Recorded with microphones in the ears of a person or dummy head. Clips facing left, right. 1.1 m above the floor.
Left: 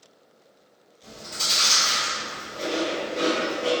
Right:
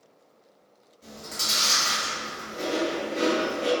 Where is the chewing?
80° right, 1.5 m.